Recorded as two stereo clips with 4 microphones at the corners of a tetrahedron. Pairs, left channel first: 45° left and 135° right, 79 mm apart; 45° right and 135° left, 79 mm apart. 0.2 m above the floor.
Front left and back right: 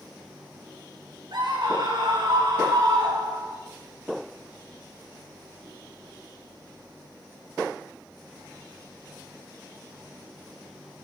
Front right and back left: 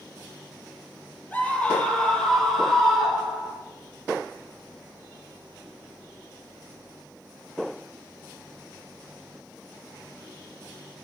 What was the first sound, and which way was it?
A scream, 115° right.